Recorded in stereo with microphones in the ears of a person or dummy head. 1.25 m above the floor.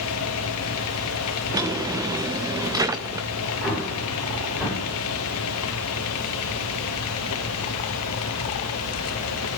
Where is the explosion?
20° right (ahead or behind), 5.5 m.